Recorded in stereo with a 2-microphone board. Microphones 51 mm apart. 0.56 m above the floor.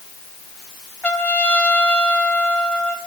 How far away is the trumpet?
About 4.5 m.